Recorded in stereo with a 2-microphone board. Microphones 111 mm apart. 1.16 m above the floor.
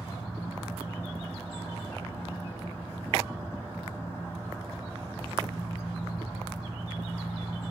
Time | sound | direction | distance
0.0 | an engine running | 25° left (ahead or behind) | 5 m